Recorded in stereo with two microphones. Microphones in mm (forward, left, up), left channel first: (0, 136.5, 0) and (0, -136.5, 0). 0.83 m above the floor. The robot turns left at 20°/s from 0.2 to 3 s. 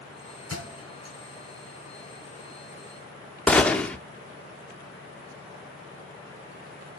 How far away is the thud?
About 4.5 m.